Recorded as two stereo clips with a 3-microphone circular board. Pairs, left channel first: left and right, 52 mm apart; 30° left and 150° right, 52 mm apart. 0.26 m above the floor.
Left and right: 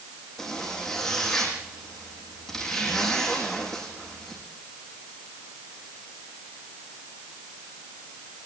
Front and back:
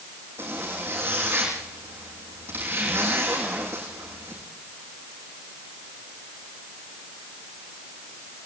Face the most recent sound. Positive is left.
turn(degrees=170)